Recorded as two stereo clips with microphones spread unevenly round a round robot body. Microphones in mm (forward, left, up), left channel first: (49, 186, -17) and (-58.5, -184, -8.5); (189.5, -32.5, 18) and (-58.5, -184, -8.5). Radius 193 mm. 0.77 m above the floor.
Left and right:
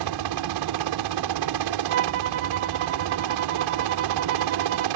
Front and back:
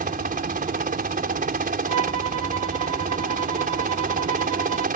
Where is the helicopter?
95° right.